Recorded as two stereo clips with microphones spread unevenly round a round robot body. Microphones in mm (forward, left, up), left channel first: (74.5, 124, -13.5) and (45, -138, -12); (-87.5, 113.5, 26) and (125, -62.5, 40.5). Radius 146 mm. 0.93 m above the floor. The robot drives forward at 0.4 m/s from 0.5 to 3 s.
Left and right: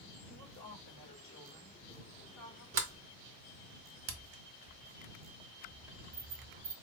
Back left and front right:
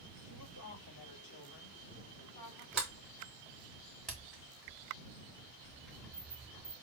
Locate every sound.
0.2 s a woman speaking: 130° left, 2.5 m; by 2.6 s 145° left, 3 m
2.7 s a sliding door: 125° right, 0.9 m; by 6.7 s 130° right, 0.9 m